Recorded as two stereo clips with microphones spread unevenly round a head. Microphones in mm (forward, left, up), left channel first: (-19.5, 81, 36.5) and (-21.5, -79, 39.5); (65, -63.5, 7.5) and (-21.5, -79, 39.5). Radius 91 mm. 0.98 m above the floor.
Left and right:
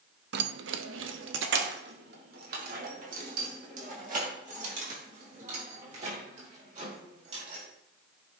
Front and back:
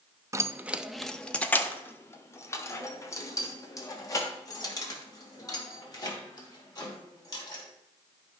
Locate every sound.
0.3 s keys jangling: 115° right, 0.6 m; by 7.6 s 40° right, 5 m